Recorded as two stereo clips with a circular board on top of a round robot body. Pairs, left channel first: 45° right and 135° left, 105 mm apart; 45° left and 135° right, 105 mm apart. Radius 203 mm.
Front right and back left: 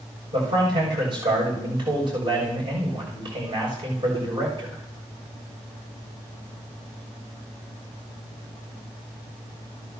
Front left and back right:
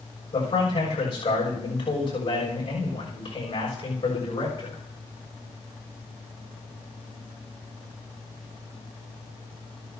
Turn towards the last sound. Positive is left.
turn(degrees=90)